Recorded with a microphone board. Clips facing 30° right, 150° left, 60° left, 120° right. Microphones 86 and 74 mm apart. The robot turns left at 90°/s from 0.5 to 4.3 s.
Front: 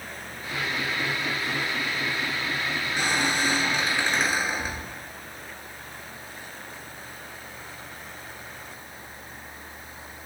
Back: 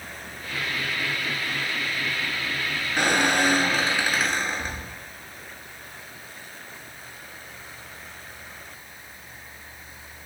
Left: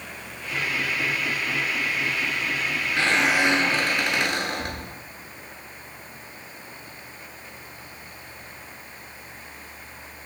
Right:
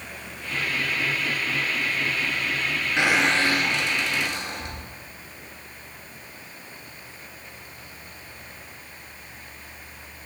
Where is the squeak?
175° left, 1.0 m; by 5.0 s 55° left, 1.0 m.